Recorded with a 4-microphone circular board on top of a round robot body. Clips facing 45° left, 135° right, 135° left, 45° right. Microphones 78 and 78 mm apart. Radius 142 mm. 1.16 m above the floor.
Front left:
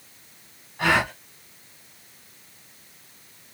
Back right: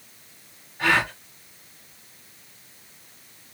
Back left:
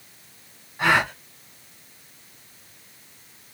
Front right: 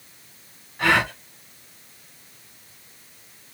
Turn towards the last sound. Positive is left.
turn(degrees=60)